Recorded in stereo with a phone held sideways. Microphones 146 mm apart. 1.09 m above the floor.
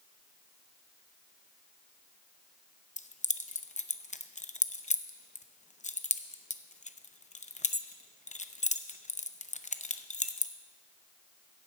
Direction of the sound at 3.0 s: 55° left (ahead or behind).